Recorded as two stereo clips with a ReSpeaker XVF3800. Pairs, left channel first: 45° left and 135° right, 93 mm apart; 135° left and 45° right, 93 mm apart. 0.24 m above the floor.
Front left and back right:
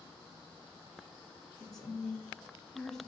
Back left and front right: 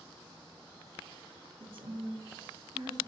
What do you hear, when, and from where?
1.6 s a woman speaking: 40° right, 2.5 m; by 3.0 s 35° right, 1.3 m